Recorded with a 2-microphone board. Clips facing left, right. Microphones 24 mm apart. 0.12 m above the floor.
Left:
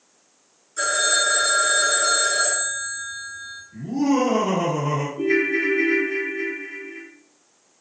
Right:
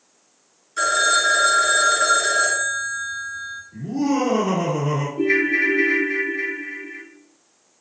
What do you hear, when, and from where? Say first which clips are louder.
0.8 s a phone ringing: right 3 dB; 40° right (ahead or behind), 0.9 m
3.7 s laughter: left 1 dB; 5° right (ahead or behind), 1.7 m
5.2 s a ringtone: right 2 dB; 35° right (ahead or behind), 0.7 m